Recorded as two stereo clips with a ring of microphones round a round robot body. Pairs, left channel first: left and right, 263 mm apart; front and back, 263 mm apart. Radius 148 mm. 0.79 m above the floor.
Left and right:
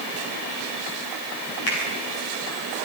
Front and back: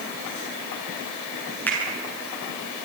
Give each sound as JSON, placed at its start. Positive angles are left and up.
{"t": 1.7, "sound": "a finger snap", "azimuth_deg": 85, "distance_m": 9.5}